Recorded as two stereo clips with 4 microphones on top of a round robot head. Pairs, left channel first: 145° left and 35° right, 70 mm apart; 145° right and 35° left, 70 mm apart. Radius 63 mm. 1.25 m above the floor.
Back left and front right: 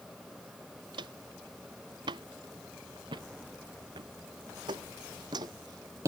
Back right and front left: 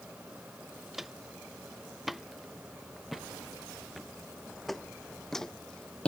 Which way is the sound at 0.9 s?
55° right.